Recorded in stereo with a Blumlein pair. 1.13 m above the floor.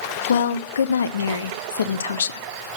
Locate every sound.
0.3 s a woman speaking: 65° left, 0.6 m